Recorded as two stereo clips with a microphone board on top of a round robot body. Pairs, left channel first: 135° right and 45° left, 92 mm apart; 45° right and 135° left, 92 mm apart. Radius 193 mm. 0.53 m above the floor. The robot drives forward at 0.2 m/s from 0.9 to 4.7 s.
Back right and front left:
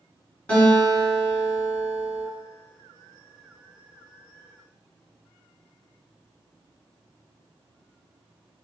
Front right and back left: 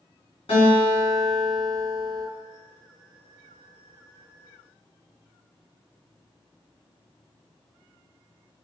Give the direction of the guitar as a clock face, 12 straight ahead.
2 o'clock.